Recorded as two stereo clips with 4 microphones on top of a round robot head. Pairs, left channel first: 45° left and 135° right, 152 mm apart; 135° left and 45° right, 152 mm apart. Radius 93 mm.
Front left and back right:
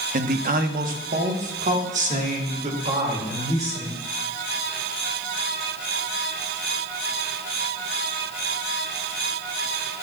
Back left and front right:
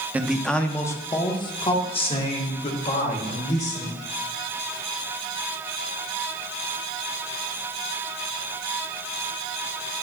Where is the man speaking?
125° right, 0.7 m; by 4.0 s 175° left, 2.5 m.